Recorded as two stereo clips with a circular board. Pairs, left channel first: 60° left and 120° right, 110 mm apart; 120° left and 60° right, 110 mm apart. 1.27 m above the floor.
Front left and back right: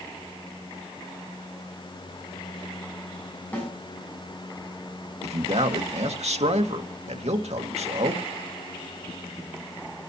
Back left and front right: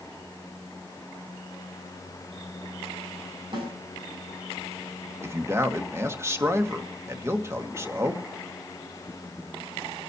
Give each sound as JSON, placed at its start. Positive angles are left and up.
{"t": 3.5, "sound": "a snare drum", "azimuth_deg": -15, "distance_m": 7.5}
{"t": 5.2, "sound": "a man speaking", "azimuth_deg": -125, "distance_m": 1.8}